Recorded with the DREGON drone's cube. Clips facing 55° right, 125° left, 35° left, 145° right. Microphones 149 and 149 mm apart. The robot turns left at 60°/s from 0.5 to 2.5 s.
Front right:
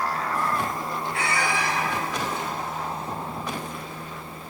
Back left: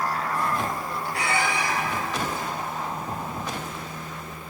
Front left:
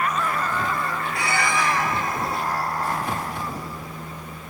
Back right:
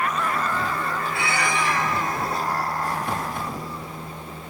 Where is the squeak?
80° left, 0.7 m; by 1.7 s 45° left, 0.7 m.